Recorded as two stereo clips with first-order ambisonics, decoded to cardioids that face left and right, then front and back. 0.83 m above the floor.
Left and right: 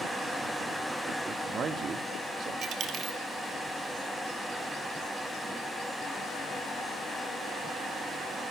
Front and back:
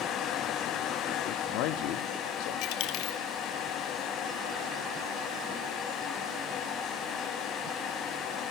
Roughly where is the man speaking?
Ahead right.